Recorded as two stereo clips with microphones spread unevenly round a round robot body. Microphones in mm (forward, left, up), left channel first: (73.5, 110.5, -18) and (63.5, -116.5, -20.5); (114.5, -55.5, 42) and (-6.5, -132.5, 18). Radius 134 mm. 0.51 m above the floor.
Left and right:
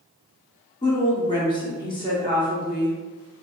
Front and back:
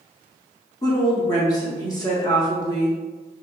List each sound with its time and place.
0.8 s a woman speaking: 65° left, 0.7 m